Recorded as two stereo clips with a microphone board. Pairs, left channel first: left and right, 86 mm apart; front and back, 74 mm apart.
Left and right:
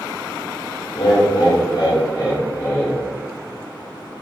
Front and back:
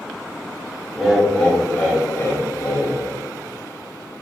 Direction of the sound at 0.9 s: 95° left.